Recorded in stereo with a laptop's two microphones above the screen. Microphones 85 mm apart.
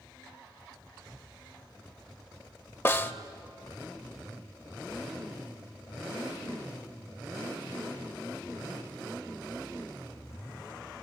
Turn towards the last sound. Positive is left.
turn(degrees=25)  # may be behind; listen again after turning